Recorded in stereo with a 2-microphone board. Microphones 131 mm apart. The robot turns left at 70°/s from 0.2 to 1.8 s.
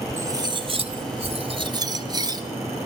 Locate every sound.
0.2 s cutlery clinking: 30° right, 1.0 m; by 2.4 s 140° right, 1.0 m